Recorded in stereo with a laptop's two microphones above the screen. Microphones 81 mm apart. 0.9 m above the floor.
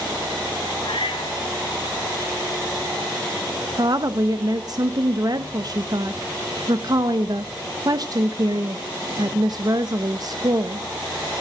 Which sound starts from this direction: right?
A woman speaking, at 3.8 s.